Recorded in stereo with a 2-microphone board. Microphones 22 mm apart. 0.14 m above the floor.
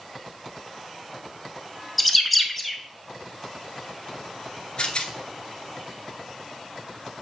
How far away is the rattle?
About 0.7 m.